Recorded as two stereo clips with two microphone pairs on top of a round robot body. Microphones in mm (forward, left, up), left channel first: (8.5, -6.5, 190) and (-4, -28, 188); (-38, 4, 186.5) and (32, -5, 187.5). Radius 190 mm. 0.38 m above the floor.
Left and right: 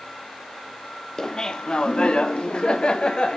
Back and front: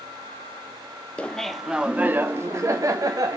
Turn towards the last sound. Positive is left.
turn(degrees=10)